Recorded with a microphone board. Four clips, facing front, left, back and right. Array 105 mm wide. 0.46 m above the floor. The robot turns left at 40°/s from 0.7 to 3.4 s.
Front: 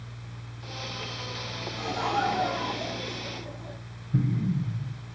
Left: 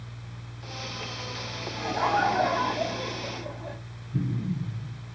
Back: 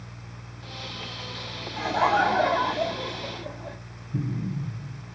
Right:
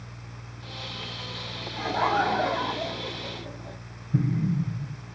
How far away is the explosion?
About 1.7 m.